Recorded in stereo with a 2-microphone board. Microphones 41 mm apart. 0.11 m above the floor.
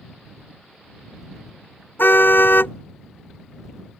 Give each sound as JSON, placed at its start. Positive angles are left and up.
{"t": 2.0, "sound": "a car horn", "side_deg": 65}